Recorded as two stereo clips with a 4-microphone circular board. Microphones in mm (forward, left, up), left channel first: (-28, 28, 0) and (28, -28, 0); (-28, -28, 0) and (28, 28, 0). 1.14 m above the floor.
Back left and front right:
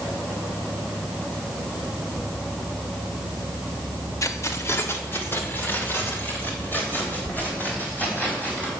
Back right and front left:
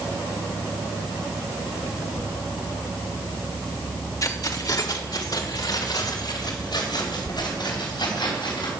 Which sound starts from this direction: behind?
Keys jangling, at 4.2 s.